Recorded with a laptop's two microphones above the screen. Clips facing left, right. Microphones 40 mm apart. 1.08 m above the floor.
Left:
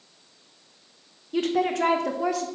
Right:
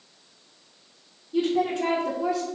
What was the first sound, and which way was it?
A woman speaking, 70° left (ahead or behind).